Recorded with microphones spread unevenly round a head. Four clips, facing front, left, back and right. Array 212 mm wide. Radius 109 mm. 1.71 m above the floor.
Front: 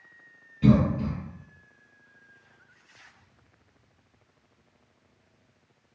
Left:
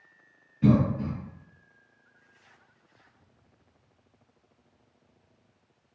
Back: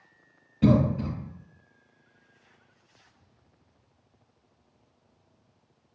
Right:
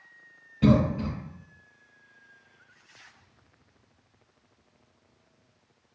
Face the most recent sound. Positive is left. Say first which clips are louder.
# right 1 dB, front 1 dB
turn(degrees=-145)